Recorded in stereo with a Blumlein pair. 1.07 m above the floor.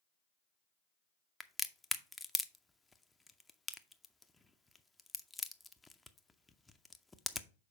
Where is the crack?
10° left, 0.5 m.